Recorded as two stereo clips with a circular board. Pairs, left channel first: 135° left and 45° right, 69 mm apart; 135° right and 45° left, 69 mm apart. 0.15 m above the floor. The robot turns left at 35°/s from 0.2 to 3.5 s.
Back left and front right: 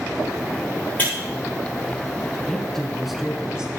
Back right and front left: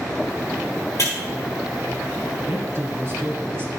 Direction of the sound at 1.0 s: 160° right.